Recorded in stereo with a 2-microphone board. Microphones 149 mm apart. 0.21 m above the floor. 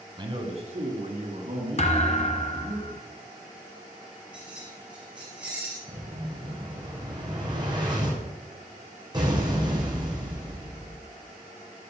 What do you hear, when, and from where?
0.2 s a man speaking: 30° right (ahead or behind), 1.6 m; by 2.8 s 50° right (ahead or behind), 4 m
1.8 s a thud: 50° left (ahead or behind), 1.1 m
4.3 s keys jangling: 10° right (ahead or behind), 3 m
5.9 s an explosion: 30° right (ahead or behind), 3 m